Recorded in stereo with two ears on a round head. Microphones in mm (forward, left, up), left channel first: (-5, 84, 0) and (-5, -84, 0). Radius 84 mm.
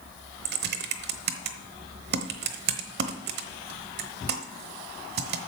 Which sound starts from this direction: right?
Typing on a keyboard, at 0.5 s.